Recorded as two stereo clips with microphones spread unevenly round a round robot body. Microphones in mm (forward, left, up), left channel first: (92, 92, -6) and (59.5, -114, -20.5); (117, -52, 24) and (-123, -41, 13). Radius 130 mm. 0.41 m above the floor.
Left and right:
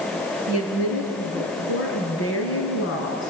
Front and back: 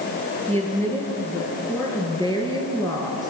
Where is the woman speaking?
80° left, 6.5 m; by 3.3 s 70° left, 4.5 m.